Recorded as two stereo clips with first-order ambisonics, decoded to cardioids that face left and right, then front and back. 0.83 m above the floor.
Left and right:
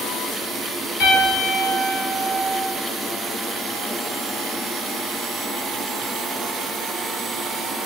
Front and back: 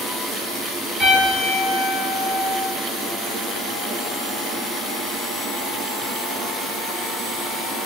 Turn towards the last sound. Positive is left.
turn(degrees=115)